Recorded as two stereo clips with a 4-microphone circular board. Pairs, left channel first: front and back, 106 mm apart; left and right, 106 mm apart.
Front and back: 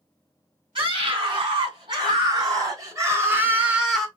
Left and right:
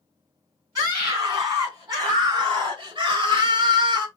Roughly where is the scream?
Behind right.